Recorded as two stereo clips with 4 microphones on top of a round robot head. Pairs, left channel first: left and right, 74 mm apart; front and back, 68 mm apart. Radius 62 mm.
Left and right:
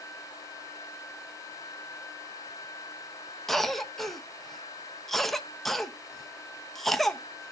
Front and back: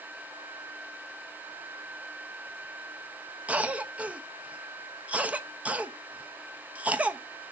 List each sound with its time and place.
3.5 s a cough: 170° left, 0.9 m